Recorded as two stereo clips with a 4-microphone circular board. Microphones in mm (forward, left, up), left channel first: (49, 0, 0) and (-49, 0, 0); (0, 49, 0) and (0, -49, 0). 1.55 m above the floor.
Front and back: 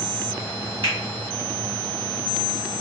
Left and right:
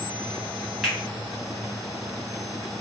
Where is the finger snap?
175° right, 1.3 m.